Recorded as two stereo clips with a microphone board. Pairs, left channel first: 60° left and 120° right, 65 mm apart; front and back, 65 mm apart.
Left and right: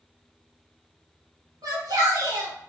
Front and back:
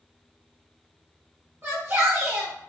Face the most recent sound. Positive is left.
turn(degrees=-125)